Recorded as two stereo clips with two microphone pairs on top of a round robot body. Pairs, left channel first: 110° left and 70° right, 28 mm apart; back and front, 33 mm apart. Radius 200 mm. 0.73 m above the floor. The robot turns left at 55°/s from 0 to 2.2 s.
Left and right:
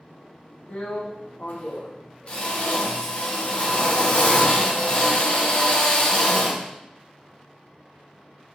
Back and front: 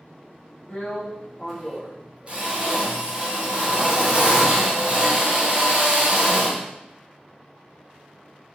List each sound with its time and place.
0.7 s a drill: 140° left, 1.2 m; by 6.6 s 60° left, 1.2 m